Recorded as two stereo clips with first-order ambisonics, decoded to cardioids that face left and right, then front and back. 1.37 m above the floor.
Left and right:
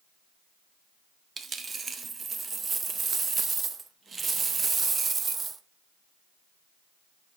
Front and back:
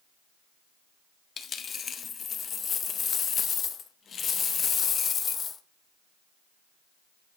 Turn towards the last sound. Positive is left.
turn(degrees=-40)